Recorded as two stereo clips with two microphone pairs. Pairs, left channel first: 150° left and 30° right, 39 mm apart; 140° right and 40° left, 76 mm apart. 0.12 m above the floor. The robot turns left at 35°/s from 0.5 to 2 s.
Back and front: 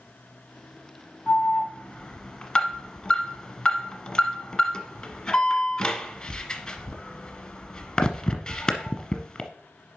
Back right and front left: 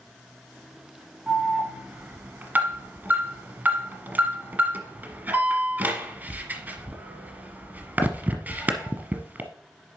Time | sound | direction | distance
1.3 | an alarm | 110° left | 1.1 m